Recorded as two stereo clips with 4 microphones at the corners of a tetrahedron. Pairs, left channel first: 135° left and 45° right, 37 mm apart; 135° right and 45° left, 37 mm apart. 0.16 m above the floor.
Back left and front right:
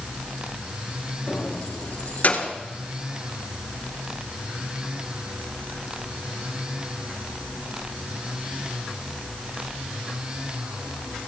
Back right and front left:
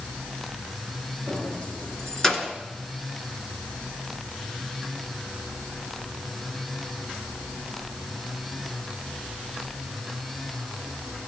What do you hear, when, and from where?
1.3 s keys jangling: 175° right, 2.5 m; by 2.5 s 140° left, 1.5 m